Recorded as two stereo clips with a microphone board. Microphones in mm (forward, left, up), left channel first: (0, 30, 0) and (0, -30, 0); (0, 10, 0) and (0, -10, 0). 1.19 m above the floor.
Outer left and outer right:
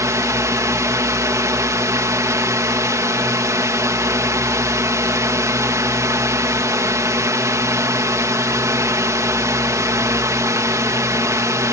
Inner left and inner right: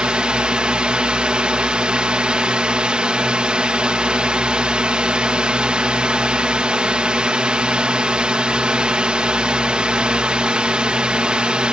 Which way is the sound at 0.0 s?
60° right (ahead or behind).